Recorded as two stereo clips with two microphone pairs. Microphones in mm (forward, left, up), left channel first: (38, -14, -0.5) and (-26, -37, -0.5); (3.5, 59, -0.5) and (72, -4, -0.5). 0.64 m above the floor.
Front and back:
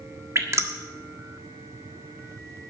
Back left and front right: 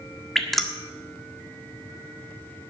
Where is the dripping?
135° right, 1.4 m.